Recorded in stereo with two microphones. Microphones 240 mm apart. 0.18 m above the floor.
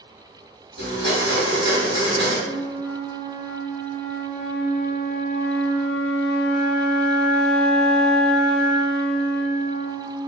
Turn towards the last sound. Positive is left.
turn(degrees=40)  # may be behind; listen again after turning